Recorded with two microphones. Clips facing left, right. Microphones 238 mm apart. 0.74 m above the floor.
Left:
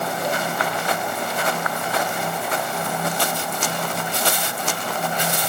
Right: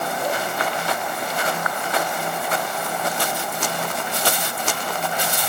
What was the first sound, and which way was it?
Only background noise.